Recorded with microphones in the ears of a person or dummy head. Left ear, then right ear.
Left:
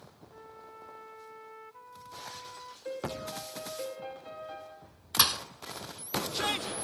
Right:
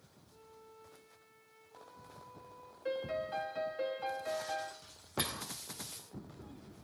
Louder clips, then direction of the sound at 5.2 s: Left 12 dB; 45° left (ahead or behind).